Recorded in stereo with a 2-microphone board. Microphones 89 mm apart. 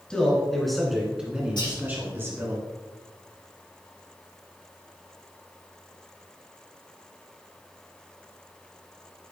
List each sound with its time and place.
0.1 s a man speaking: 10° left (ahead or behind), 2 m; by 2.6 s 30° right (ahead or behind), 1.9 m
1.6 s whispering: 60° left (ahead or behind), 3 m